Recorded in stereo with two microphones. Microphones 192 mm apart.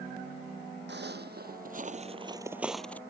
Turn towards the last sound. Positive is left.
turn(degrees=10)  # may be behind; listen again after turning